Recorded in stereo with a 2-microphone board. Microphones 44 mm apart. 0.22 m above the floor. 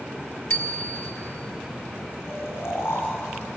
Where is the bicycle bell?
70° left (ahead or behind), 2 m.